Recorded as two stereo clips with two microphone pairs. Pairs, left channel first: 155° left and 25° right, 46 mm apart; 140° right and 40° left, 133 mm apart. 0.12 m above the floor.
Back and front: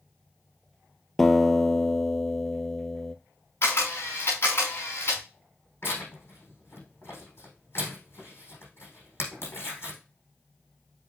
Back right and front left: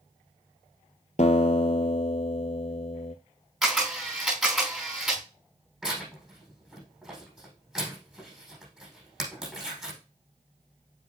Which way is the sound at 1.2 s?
120° right.